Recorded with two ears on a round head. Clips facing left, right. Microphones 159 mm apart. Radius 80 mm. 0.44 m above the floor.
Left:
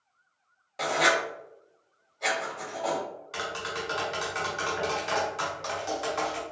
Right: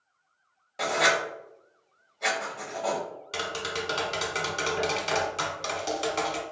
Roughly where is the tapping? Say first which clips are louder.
Right 3 dB; right.